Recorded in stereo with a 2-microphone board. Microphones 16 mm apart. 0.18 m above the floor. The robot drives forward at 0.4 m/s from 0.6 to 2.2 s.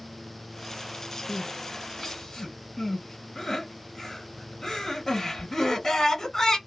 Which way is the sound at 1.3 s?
40° left (ahead or behind).